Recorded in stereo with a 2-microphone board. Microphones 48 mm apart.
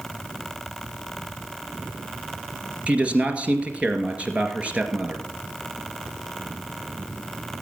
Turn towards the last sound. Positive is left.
turn(degrees=-30)  # may be behind; listen again after turning